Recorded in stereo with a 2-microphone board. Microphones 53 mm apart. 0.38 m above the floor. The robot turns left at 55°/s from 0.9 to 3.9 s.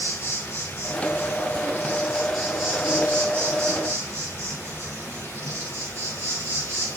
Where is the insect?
85° left, 3 m; by 7.0 s 80° right, 3 m.